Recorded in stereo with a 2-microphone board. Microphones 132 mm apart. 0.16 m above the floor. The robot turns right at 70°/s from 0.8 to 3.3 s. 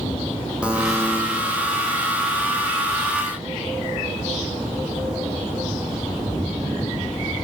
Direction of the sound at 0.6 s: 10° right (ahead or behind).